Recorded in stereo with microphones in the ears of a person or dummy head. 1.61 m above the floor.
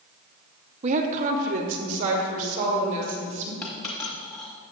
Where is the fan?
No fan in this recording.